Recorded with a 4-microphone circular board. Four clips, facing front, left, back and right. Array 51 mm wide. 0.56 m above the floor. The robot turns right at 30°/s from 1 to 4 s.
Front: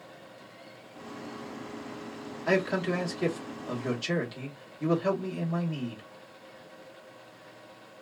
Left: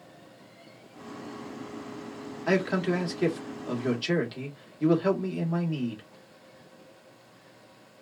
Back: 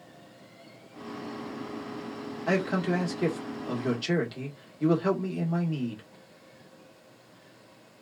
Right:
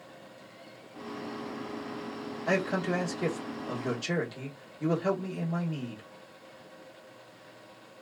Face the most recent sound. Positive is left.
turn(degrees=125)